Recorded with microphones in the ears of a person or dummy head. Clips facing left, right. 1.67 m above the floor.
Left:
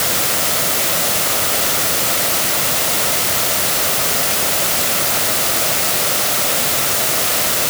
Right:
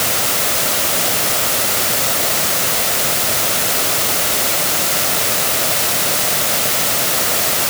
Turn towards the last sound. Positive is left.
No sound to turn to.